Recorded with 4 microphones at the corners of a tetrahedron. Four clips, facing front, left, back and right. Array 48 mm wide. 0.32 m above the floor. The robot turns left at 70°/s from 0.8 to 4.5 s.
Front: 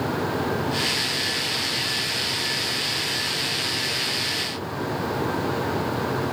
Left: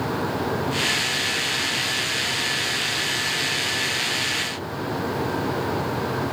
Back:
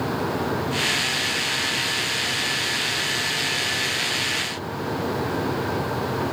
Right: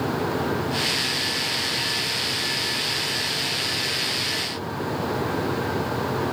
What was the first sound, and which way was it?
Only background noise.